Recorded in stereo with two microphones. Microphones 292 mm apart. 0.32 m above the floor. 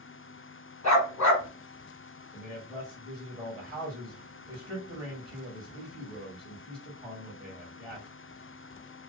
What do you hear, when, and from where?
0.8 s a dog barking: 65° left (ahead or behind), 1.0 m
2.3 s a man speaking: 10° right (ahead or behind), 1.4 m